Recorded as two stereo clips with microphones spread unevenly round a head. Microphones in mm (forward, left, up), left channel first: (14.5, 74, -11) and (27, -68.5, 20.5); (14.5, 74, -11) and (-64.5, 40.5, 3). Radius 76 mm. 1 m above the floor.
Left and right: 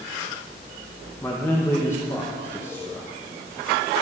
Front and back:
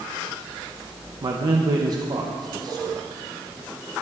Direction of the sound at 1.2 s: 165° left.